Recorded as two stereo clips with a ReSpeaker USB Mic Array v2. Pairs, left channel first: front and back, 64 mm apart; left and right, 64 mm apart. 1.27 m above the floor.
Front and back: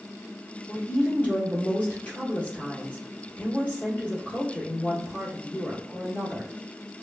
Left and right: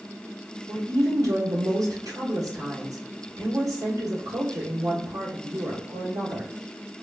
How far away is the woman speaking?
About 1.5 m.